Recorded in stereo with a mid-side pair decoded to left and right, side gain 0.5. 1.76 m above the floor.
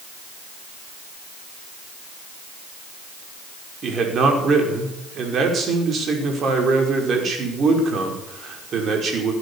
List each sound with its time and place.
3.8 s a man speaking: 50° right, 5.5 m